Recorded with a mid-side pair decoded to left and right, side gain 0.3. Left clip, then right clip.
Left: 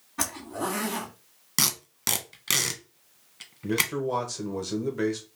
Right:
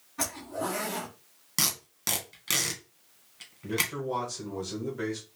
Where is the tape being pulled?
45° left, 1.3 m.